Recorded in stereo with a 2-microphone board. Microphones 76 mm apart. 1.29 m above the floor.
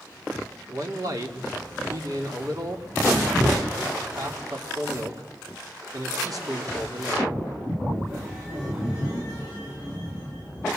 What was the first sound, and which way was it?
A man speaking, 50° right (ahead or behind).